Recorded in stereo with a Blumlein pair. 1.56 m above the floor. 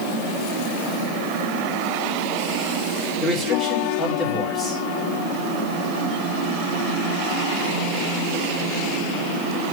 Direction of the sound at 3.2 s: 20° left.